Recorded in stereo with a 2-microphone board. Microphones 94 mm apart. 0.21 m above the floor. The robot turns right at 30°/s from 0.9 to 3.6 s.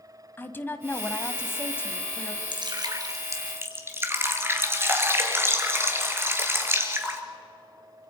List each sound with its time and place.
0.4 s a woman speaking: 20° left (ahead or behind), 1.3 m
2.5 s dripping: 60° right, 2 m; by 7.2 s 25° right, 2 m